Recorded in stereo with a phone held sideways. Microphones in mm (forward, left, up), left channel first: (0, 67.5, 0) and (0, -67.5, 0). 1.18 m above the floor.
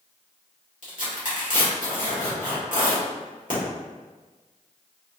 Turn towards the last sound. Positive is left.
turn(degrees=75)  # may be behind; listen again after turning